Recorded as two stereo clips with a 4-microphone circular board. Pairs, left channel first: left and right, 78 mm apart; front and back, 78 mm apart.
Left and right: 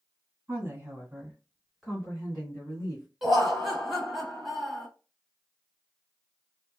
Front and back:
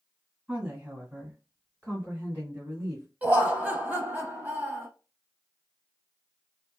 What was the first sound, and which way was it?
A woman speaking, 115° right.